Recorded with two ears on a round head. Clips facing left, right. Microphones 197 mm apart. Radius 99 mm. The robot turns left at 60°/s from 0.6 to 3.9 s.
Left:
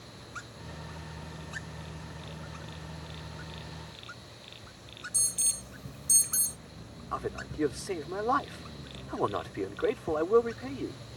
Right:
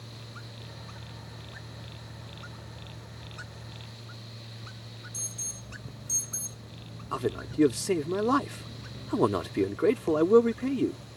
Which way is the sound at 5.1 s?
35° left (ahead or behind).